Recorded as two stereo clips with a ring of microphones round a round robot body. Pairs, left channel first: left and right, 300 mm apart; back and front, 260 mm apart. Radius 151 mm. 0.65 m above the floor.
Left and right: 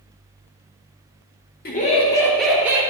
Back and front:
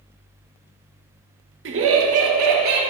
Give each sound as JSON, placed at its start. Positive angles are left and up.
{"t": 1.6, "sound": "laughter", "azimuth_deg": 35, "distance_m": 1.2}